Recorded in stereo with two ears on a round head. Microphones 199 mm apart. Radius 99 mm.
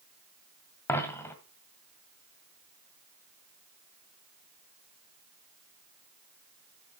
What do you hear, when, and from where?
0.9 s a dropped coin: 10° left (ahead or behind), 2.0 m